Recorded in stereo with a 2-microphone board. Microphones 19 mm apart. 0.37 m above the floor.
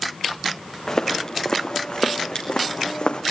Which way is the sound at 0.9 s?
35° left (ahead or behind).